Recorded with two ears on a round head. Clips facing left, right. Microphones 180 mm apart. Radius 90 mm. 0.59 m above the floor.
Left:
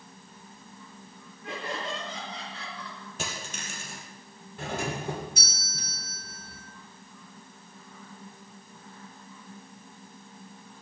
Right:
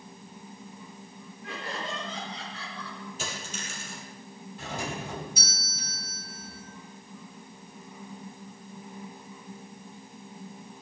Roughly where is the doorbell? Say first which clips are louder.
Left 3 dB; left.